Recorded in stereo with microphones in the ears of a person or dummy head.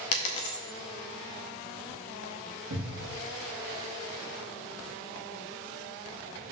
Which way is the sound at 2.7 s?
45° right (ahead or behind).